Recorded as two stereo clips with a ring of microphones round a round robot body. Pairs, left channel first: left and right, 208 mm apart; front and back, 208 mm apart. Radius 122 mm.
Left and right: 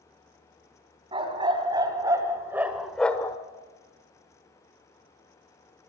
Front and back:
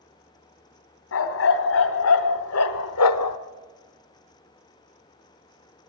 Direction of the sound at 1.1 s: 20° right.